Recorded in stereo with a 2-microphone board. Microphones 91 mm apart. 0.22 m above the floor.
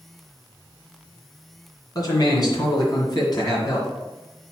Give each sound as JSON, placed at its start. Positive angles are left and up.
{"t": 1.9, "sound": "a man speaking", "side_deg": 45, "distance_m": 2.5}